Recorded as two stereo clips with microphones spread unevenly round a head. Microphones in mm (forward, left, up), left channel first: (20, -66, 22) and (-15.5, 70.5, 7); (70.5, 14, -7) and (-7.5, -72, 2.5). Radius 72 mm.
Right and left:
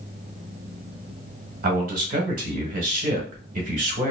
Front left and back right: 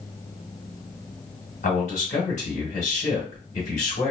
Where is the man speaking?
80° left, 1.3 m.